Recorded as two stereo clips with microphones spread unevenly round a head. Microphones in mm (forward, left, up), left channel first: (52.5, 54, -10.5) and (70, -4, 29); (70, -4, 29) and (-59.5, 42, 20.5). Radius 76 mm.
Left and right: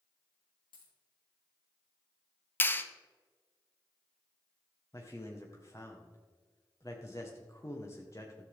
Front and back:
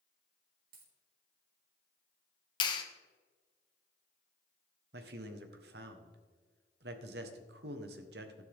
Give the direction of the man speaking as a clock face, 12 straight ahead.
6 o'clock.